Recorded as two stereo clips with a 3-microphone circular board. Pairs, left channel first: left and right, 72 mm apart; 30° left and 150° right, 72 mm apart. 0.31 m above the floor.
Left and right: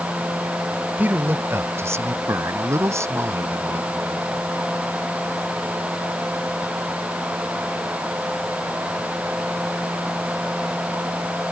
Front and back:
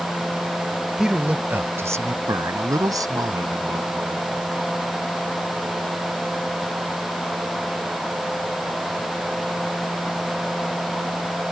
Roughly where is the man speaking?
Right.